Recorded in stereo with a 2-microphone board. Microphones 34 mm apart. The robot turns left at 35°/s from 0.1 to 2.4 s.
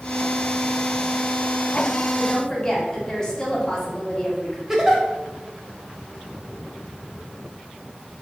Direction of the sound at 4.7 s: 15° right (ahead or behind).